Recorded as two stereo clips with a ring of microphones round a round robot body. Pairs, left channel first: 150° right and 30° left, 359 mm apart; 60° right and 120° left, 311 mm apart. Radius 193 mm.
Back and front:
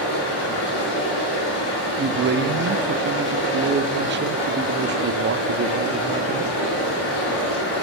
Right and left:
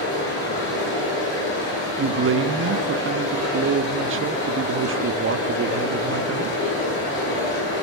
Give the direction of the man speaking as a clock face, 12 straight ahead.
9 o'clock.